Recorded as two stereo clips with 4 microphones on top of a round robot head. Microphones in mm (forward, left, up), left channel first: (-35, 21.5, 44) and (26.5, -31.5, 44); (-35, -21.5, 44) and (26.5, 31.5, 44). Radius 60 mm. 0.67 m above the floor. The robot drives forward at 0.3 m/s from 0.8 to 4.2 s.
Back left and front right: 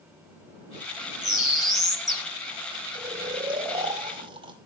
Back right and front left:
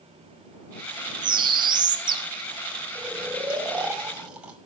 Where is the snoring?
35° right, 2.5 m; by 4.6 s 40° right, 2.5 m.